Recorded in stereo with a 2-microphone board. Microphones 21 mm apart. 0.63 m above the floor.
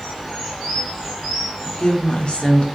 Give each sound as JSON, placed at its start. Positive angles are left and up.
{"t": 1.6, "sound": "a woman speaking", "side_deg": 50, "distance_m": 1.5}